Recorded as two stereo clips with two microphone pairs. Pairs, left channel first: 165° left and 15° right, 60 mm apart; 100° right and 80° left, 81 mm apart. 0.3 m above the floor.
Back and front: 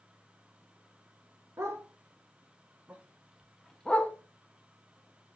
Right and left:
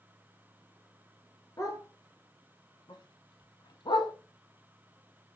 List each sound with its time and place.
1.6 s a dog barking: 60° right, 1.6 m; by 4.1 s 140° right, 0.8 m